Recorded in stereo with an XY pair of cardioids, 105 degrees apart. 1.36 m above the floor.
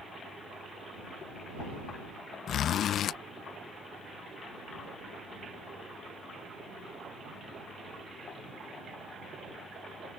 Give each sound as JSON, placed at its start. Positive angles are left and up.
{"t": 2.5, "sound": "a zipper", "azimuth_deg": 65}